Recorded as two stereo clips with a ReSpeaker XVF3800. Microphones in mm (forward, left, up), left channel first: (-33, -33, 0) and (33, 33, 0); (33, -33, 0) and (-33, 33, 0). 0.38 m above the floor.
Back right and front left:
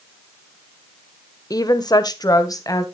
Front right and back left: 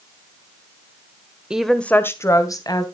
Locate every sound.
1.5 s a woman speaking: 150° right, 1.1 m; by 2.8 s 85° right, 2.5 m